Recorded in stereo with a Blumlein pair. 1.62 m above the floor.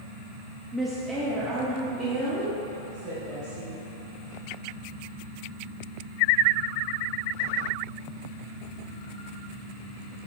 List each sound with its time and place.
0.7 s a woman speaking: 5° right, 0.7 m; by 3.8 s 30° right, 3 m